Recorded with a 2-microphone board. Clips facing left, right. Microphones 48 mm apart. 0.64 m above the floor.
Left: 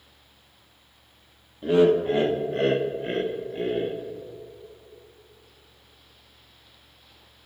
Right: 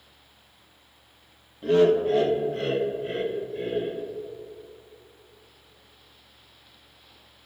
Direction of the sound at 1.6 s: 10° left (ahead or behind).